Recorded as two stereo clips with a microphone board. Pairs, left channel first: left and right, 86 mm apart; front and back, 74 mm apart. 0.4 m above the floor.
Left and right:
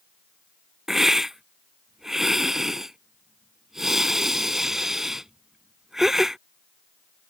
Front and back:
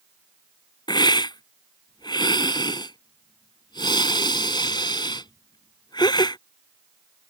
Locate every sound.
0.9 s a hiss: 5° right